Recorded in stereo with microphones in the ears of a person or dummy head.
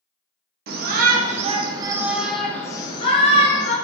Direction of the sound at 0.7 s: 60° right (ahead or behind).